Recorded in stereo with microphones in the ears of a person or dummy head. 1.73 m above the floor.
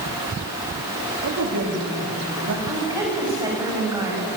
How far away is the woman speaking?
About 9 m.